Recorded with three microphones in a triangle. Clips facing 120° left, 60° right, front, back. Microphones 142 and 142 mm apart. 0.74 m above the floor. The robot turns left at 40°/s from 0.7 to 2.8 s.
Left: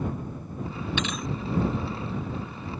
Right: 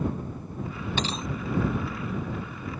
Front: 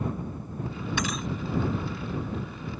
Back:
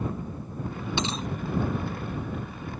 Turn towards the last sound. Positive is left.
turn(degrees=175)